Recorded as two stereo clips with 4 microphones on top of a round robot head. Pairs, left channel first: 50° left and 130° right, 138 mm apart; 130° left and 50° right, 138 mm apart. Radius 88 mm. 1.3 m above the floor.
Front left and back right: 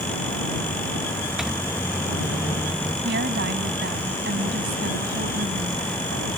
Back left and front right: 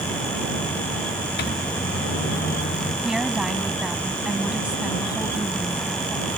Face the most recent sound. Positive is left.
turn(degrees=-135)